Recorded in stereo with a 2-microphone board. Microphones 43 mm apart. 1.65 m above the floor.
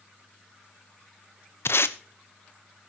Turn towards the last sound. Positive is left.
turn(degrees=65)  # may be behind; listen again after turning